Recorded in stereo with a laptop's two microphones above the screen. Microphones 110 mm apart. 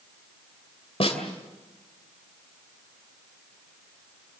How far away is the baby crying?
No baby crying in this recording.